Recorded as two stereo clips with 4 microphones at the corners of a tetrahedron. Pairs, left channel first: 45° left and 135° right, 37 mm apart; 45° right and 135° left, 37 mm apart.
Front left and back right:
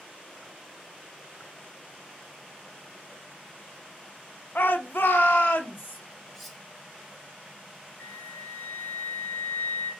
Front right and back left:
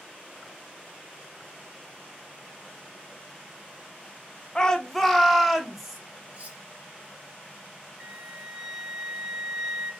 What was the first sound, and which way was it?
A shout, 25° left.